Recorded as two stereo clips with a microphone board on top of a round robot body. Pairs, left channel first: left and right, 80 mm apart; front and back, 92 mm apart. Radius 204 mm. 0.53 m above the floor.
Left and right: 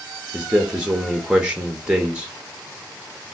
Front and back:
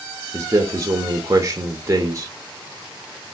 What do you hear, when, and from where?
0.3 s a man speaking: 160° right, 0.8 m